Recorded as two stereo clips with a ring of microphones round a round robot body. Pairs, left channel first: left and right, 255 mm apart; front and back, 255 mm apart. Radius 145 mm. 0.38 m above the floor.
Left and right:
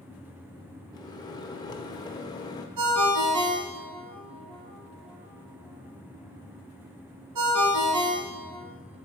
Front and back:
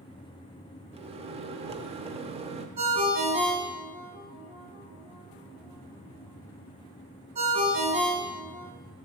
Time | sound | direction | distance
0.9 | a microwave | 145° left | 0.7 m
2.8 | a ringtone | 110° right | 1.5 m